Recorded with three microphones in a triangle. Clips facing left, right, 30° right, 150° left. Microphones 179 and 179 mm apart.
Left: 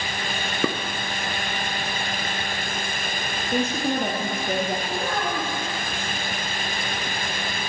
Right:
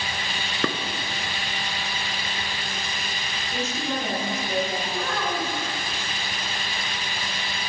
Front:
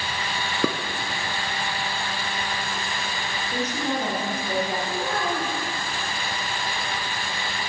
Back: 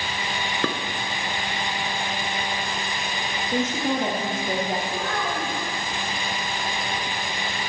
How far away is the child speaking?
About 5.5 m.